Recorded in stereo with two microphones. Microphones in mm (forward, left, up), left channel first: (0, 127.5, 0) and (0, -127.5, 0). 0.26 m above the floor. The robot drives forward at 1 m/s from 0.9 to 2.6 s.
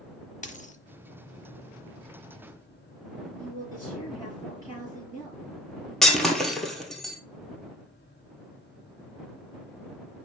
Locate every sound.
0.4 s a dropped coin: 30° left (ahead or behind), 0.7 m
3.4 s a woman speaking: 5° right (ahead or behind), 5 m
6.0 s breaking glass: centre (ahead or behind), 1.4 m